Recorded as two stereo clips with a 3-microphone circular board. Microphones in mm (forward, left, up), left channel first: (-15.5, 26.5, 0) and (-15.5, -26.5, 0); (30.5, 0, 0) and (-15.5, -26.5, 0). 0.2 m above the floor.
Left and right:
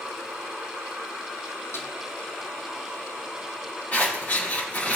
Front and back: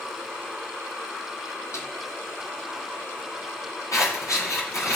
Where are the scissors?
30° left, 7.5 m.